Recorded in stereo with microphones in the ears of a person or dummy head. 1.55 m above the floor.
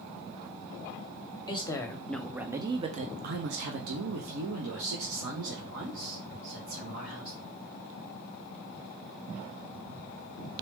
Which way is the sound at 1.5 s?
25° left (ahead or behind).